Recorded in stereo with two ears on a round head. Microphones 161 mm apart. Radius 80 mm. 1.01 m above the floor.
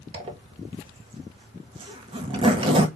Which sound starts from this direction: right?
A zipper, at 0.1 s.